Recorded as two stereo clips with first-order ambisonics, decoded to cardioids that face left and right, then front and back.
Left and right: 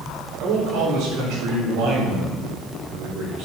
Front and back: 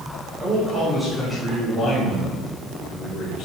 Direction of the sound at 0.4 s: 110° right.